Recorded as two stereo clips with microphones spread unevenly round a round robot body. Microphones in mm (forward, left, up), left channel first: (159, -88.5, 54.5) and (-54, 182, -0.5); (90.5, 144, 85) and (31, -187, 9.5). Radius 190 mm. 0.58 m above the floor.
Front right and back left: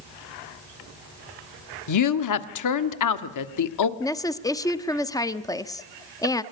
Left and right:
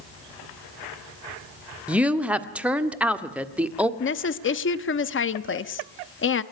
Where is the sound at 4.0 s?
35° left, 1.1 m.